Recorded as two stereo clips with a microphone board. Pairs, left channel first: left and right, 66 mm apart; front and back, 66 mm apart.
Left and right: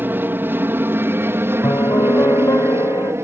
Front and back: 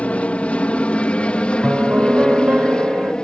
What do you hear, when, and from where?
0.0 s an aircraft: 55° right; by 3.2 s 70° right
1.6 s a piano: 115° left